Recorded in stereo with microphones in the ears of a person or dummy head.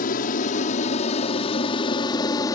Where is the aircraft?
45° left (ahead or behind); by 2.6 s 20° left (ahead or behind).